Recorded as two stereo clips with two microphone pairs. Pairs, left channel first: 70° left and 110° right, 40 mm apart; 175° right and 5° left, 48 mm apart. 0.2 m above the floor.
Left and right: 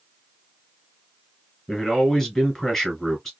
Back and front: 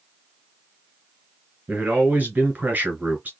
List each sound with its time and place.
1.7 s a man speaking: straight ahead, 1.6 m